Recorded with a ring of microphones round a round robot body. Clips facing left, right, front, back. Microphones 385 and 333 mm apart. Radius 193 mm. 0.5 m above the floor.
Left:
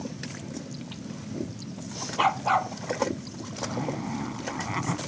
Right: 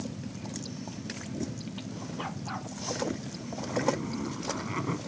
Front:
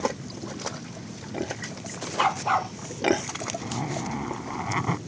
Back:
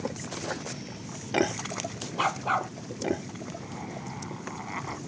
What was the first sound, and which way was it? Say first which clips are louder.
A dog barking: left 8 dB, front 3 dB; 85° left.